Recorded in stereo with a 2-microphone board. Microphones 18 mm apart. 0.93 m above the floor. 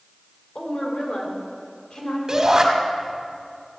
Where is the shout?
35° right (ahead or behind), 2 m.